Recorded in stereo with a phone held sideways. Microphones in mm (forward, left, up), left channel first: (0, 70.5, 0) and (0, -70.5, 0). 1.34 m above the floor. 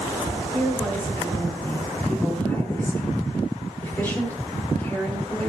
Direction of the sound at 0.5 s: 15° left (ahead or behind).